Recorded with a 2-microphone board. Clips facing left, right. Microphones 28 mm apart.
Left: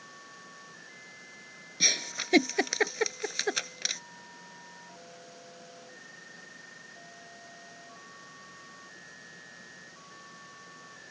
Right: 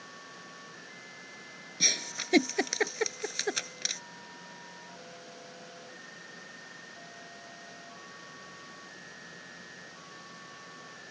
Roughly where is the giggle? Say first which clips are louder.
Left 2 dB; centre.